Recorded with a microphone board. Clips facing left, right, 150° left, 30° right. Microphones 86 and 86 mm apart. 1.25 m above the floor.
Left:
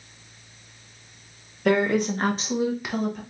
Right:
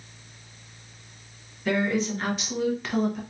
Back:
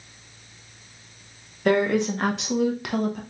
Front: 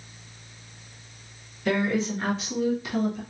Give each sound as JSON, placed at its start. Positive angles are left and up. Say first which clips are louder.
{"t": 1.6, "sound": "a woman speaking", "louder": "left 4 dB, back 4 dB", "azimuth_deg": 115, "distance_m": 1.3}